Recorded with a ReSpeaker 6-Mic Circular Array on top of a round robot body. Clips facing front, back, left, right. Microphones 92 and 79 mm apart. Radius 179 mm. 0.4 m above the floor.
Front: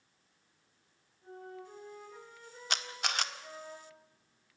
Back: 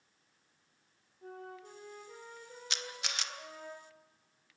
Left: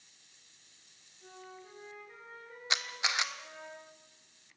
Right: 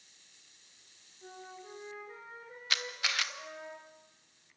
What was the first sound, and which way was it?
A flute, 155° right.